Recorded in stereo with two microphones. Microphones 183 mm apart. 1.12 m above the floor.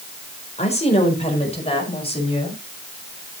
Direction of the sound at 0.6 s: 35° left (ahead or behind).